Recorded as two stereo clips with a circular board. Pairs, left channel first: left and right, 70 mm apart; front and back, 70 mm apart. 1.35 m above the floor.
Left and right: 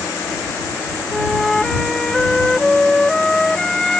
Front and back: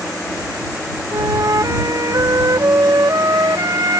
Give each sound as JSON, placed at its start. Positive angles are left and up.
{"t": 1.1, "sound": "a flute", "azimuth_deg": 170}